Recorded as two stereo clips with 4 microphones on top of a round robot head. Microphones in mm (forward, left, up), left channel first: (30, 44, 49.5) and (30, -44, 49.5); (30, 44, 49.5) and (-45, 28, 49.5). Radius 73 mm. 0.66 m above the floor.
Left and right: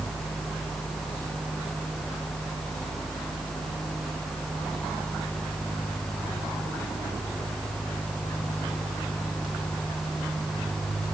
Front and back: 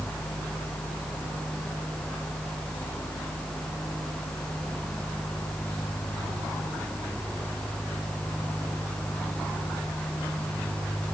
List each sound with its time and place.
Only background noise.